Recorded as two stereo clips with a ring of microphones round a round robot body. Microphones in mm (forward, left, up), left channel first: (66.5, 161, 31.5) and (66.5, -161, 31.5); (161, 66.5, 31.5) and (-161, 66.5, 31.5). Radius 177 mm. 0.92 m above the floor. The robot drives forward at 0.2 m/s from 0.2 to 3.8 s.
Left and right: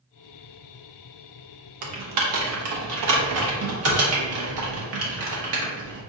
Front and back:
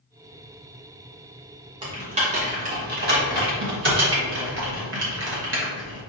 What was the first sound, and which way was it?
Typing on a keyboard, 105° right.